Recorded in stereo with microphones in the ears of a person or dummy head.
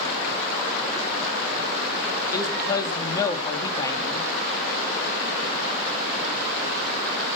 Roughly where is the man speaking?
Left.